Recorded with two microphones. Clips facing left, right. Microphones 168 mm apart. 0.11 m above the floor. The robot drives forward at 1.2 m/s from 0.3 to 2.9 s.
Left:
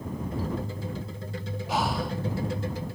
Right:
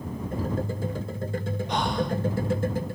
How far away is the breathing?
About 0.8 m.